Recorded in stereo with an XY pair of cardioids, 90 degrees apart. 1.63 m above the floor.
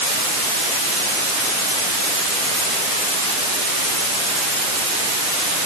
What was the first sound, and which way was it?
Only background noise.